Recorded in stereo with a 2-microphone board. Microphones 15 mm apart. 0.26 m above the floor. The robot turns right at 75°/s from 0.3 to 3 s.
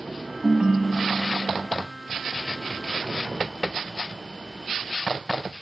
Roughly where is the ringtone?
Right.